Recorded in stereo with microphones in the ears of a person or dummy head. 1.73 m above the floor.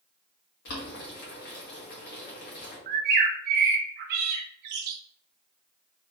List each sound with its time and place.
0.7 s boiling: 55° left (ahead or behind), 1.9 m
2.9 s a bird: 55° right (ahead or behind), 0.5 m